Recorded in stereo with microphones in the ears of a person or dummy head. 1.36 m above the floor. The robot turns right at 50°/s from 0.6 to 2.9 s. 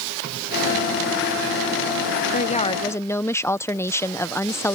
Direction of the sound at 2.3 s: 35° left (ahead or behind).